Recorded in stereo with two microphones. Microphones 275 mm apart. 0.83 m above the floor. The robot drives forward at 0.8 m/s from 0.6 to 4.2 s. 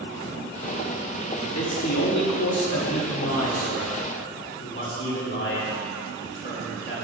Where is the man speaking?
55° left (ahead or behind), 1.6 m; by 7.0 s 45° left (ahead or behind), 2.0 m.